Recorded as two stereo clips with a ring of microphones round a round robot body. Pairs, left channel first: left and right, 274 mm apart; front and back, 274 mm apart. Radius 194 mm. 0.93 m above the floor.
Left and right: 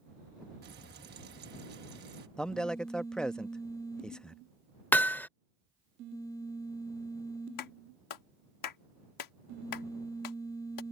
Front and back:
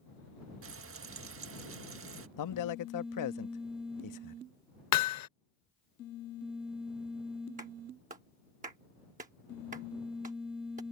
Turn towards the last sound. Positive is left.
turn(degrees=110)